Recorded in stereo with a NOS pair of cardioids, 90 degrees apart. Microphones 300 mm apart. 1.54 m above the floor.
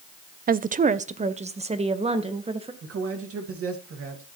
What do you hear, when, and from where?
0.5 s a woman speaking: 30° right, 0.6 m; by 2.7 s 20° right, 2 m
2.8 s a man speaking: 50° right, 2.5 m